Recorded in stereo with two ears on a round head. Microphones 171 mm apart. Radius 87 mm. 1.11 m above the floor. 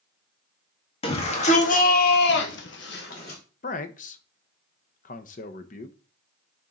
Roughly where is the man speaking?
Left.